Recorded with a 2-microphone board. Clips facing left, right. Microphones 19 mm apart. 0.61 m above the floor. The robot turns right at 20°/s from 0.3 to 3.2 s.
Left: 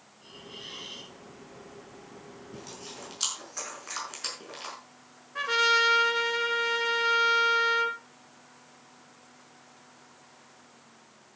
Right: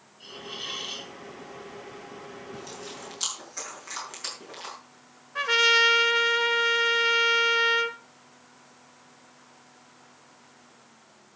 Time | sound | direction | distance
0.2 | a hiss | 80° right | 2.5 m
2.5 | chewing | centre (ahead or behind) | 6.5 m
5.3 | a trumpet | 20° right (ahead or behind) | 1.3 m